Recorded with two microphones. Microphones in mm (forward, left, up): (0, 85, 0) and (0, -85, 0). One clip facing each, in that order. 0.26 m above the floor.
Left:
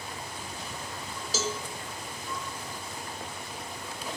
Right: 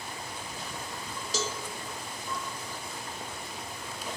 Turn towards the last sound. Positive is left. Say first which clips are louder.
# left 2 dB
turn(degrees=0)  # may be behind; listen again after turning